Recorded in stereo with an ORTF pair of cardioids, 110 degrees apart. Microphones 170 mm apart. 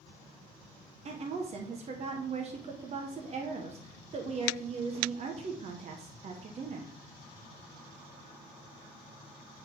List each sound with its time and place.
1.1 s a woman speaking: 40° right, 1.1 m